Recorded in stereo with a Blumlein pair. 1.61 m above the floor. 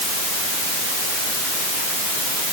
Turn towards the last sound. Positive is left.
No sound to turn to.